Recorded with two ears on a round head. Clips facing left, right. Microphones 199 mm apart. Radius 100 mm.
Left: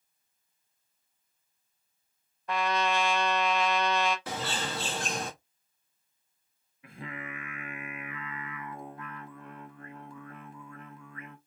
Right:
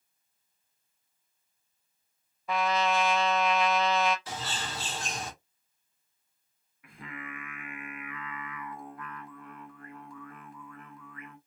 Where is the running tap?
No running tap in this recording.